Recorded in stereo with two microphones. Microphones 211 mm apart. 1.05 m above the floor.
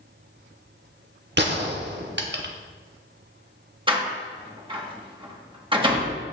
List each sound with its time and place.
1.4 s a gunshot: 55° right (ahead or behind), 0.9 m
3.9 s a door slam: 25° right (ahead or behind), 1.2 m